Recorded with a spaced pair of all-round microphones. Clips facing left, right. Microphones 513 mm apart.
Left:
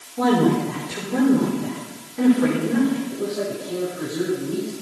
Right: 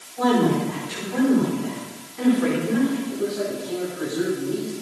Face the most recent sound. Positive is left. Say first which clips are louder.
# even
turn(degrees=-5)  # may be behind; listen again after turning